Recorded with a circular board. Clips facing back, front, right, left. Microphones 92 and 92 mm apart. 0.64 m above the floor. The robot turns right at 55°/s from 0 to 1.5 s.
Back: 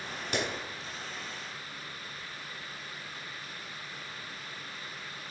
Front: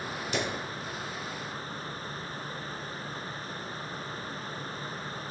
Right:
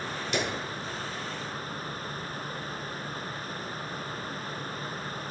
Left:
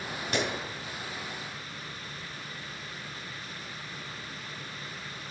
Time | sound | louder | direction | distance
0.3 | a clap | front 1 dB, even | 145° left | 4 m